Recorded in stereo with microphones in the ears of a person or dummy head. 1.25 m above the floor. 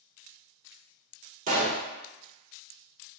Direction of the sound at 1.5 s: 45° right (ahead or behind).